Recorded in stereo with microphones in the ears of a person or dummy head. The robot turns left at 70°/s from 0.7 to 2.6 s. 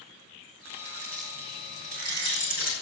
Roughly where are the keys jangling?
Right.